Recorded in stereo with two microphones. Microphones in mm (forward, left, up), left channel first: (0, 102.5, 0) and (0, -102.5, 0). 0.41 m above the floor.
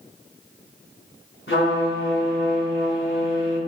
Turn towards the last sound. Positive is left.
turn(degrees=75)  # may be behind; listen again after turning